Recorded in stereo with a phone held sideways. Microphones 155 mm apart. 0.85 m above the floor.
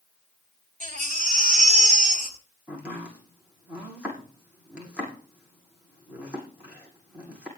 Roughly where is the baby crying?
Right.